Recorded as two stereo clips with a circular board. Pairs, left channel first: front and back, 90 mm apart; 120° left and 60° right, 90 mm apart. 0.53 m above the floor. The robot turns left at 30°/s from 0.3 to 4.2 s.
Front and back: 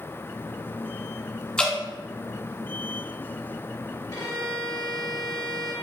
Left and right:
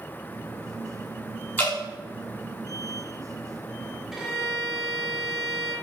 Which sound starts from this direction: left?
Dripping, at 1.6 s.